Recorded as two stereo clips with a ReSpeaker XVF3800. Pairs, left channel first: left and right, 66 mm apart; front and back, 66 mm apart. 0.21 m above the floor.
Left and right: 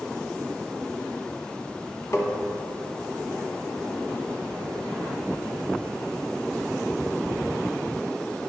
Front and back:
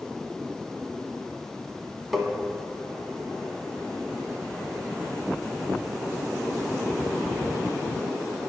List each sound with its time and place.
2.1 s tapping: 95° left, 1.2 m